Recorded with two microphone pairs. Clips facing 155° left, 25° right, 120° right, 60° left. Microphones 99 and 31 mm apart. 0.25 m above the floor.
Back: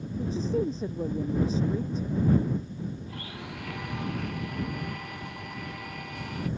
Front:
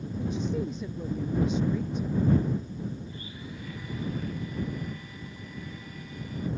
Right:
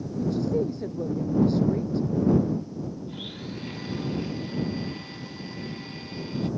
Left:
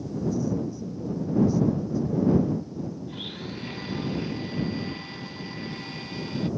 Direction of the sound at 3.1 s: 145° left.